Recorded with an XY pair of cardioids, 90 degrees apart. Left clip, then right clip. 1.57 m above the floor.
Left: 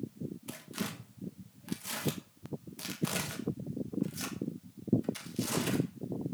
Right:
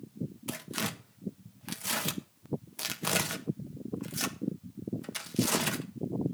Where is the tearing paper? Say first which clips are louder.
Right 7 dB; 60° right, 1.6 m.